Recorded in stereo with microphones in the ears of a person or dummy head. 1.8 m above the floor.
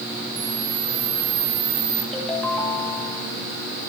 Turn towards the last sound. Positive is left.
turn(degrees=0)  # may be behind; listen again after turning